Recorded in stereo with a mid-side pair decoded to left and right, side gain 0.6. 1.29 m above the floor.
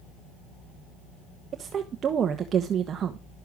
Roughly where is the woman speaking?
Ahead right.